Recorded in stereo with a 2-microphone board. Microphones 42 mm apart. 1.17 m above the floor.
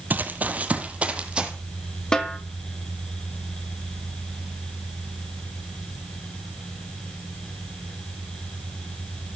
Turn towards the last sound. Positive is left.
turn(degrees=15)  # may be behind; listen again after turning